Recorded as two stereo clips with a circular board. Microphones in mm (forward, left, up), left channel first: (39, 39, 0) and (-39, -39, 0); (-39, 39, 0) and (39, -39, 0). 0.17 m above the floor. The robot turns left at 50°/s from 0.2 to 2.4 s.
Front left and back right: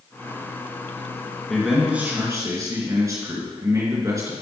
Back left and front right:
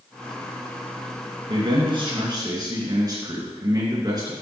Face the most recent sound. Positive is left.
turn(degrees=-85)